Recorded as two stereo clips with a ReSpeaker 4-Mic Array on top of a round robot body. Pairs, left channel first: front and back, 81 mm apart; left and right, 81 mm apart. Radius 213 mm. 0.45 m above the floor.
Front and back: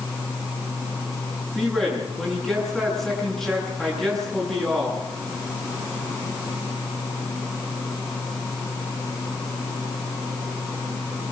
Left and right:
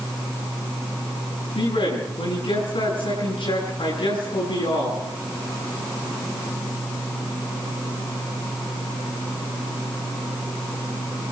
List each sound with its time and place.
1.6 s a man speaking: 85° left, 9 m